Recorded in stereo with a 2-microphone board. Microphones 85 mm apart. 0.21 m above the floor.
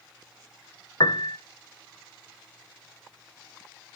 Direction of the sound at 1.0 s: 70° left (ahead or behind).